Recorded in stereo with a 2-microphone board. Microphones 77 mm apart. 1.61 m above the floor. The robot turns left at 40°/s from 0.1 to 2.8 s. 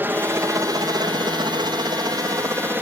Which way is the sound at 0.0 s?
25° right (ahead or behind).